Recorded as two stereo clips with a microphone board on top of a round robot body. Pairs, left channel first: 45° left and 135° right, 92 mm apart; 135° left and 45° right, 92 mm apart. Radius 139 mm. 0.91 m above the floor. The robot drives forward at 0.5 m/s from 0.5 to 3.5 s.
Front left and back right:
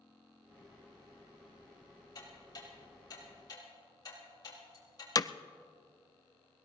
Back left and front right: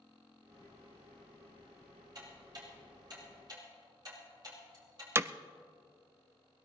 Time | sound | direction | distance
2.1 | ticking | straight ahead | 6.5 m
5.2 | hammering | 10° left | 0.6 m